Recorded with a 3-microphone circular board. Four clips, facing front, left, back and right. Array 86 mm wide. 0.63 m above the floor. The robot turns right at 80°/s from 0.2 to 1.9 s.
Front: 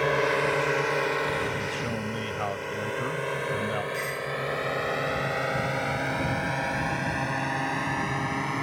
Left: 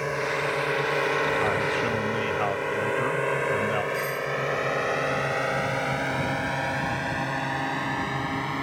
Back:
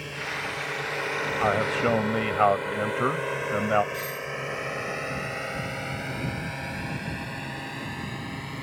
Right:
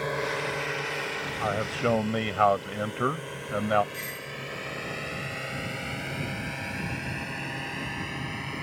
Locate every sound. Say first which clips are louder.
0.0 s a drone: left 3 dB, front 10 dB; 10° left; by 8.6 s 50° left
1.4 s a man speaking: left 3 dB, back 7 dB; straight behind; by 3.8 s 140° right
3.9 s a doorbell: left 11 dB, front 2 dB; 25° left